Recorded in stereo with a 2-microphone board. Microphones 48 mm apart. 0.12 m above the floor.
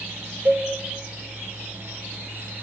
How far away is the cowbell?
About 4.5 m.